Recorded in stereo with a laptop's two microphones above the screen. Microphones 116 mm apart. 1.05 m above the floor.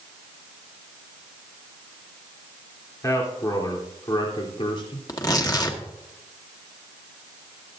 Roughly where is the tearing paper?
Left.